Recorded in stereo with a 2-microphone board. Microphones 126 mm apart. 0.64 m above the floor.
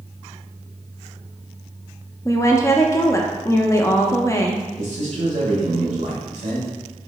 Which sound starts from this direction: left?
A woman speaking, at 2.2 s.